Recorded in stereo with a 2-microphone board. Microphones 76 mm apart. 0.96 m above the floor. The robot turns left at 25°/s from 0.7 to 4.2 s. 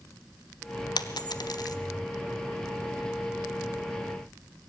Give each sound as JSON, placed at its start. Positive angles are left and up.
{"t": 1.0, "sound": "a dropped coin", "side_deg": 65, "distance_m": 1.0}